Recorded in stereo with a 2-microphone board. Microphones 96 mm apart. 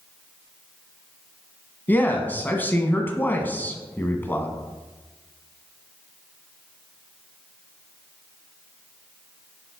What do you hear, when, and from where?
1.9 s a man speaking: 20° left (ahead or behind), 1.3 m